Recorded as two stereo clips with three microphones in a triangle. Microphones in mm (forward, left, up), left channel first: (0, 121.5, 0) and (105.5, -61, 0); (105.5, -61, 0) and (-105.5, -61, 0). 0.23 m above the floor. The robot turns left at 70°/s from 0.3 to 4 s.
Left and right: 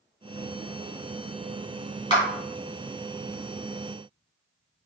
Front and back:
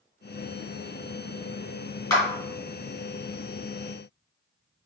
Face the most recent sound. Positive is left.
turn(degrees=-65)